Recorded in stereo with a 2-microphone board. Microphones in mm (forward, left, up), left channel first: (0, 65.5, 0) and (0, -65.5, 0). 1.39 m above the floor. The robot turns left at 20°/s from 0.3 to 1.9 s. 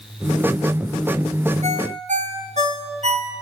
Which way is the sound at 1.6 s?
55° right (ahead or behind).